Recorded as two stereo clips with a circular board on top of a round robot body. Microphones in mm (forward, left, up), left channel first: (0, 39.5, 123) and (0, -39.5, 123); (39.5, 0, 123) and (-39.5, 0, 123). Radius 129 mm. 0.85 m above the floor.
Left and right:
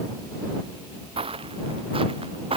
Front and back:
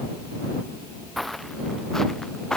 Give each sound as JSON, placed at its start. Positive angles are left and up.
{"t": 1.2, "sound": "footsteps", "azimuth_deg": -90}